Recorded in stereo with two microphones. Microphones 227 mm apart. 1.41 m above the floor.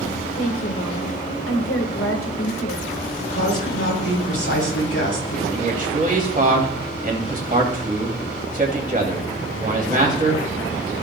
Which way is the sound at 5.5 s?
35° right (ahead or behind).